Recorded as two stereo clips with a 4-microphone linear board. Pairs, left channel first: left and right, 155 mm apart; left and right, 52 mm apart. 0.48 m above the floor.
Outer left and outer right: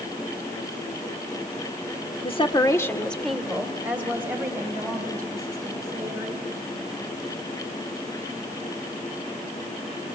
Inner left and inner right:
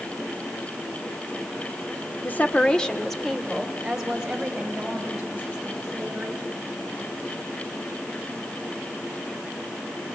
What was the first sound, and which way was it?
A woman speaking, 40° left (ahead or behind).